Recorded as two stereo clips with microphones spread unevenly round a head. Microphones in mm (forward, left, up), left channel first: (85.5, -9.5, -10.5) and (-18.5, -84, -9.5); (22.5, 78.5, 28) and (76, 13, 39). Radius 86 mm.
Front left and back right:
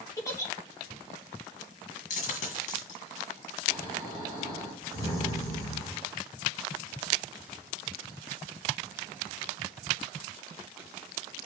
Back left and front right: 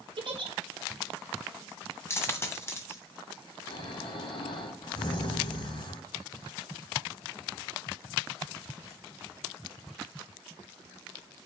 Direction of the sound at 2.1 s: 70° left.